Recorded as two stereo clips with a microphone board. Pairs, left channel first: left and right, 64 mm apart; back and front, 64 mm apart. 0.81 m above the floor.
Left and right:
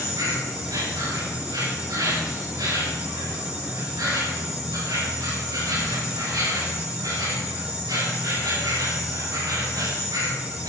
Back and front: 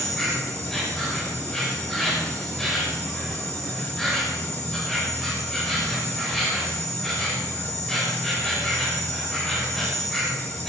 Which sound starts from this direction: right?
An insect, at 0.0 s.